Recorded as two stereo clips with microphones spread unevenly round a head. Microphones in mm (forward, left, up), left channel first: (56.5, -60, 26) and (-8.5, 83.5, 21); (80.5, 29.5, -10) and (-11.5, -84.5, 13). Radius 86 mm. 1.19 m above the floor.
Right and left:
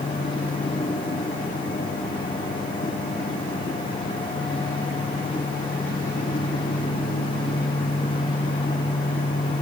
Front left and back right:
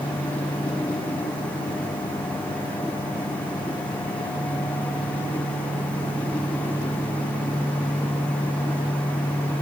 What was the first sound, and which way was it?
Only background noise.